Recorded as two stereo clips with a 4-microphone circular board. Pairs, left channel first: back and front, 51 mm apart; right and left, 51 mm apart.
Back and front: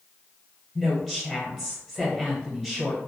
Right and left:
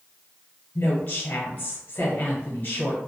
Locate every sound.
0.8 s a woman speaking: 80° right, 1.3 m